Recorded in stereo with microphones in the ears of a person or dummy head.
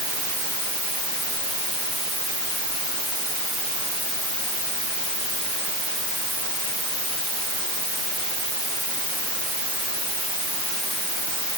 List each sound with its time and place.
Only background noise.